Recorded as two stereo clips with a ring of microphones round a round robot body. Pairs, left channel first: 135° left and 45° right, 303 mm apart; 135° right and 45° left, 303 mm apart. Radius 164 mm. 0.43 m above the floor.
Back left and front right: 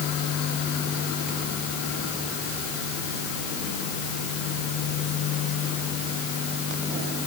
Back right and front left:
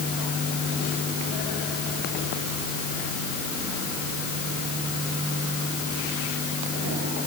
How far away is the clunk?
I don't hear a clunk.